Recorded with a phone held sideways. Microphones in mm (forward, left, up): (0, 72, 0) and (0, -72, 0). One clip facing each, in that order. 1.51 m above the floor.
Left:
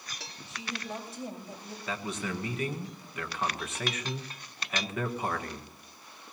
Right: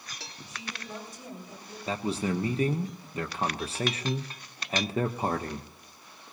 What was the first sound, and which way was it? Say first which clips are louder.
A woman speaking: left 3 dB; 25° left (ahead or behind).